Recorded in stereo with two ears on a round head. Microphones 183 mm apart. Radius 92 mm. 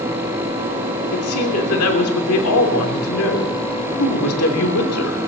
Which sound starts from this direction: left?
A woman speaking, at 1.1 s.